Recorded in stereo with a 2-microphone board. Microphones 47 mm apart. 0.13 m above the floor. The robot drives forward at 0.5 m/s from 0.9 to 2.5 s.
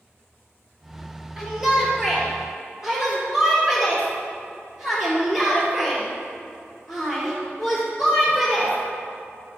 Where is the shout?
10° right (ahead or behind), 2.5 m; by 8.8 s 5° right (ahead or behind), 3 m.